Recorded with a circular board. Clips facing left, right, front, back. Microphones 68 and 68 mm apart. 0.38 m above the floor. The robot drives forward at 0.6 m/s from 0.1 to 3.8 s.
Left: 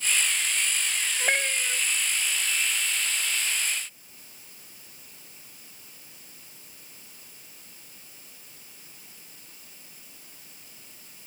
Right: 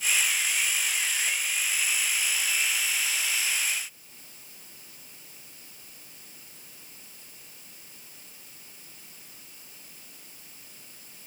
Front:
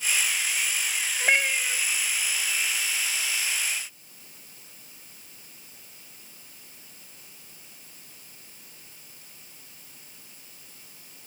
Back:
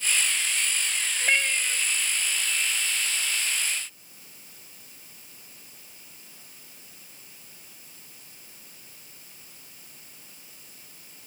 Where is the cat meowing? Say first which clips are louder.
Left 5 dB, front 2 dB; 60° left; by 1.8 s 80° left.